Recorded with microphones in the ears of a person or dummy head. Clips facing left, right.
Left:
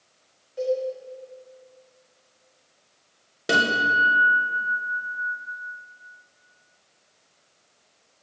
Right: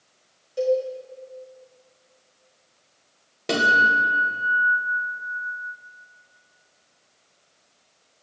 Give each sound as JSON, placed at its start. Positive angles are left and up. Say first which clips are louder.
{"t": 0.6, "sound": "a cowbell", "louder": "right 4 dB", "side_deg": -40, "distance_m": 1.4}
{"t": 3.5, "sound": "a guitar", "louder": "right 1 dB", "side_deg": 10, "distance_m": 1.2}